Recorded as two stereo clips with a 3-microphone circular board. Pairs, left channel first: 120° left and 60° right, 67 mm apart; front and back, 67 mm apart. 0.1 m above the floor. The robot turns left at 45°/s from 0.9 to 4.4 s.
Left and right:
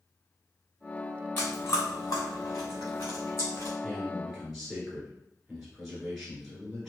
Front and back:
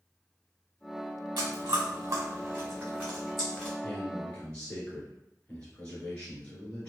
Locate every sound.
1.4 s chewing: 175° right, 1.6 m; by 3.7 s 75° left, 1.6 m
3.8 s a man speaking: 55° left, 1.2 m; by 6.9 s 30° left, 1.2 m